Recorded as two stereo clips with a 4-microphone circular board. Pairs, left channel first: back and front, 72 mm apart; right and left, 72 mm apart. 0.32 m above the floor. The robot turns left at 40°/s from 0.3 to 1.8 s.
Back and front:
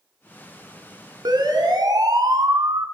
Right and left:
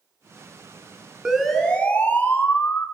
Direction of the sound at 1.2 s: 10° left.